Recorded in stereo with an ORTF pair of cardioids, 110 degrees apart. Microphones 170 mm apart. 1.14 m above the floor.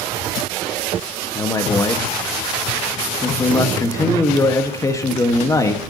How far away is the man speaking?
About 1.5 m.